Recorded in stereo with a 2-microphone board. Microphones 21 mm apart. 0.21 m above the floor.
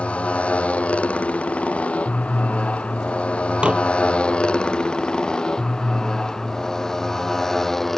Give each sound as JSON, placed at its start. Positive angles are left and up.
{"t": 0.0, "sound": "a motorcycle", "side_deg": 80}
{"t": 3.6, "sound": "dishes clattering", "side_deg": -70}